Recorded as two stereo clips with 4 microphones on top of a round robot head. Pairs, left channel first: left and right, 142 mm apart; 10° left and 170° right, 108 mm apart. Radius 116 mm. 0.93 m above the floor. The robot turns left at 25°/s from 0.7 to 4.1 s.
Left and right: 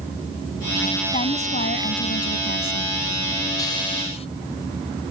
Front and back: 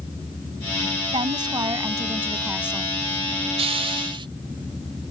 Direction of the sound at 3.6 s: 160° left.